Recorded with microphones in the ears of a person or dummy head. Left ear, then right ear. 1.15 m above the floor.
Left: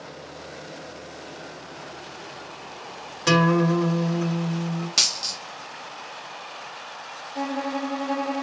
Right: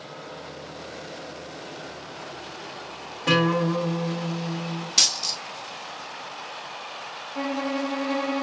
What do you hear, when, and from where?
3.3 s a guitar: 80° left, 1.4 m
5.0 s a dropped coin: 15° left (ahead or behind), 1.1 m
7.3 s a violin: 20° right (ahead or behind), 1.1 m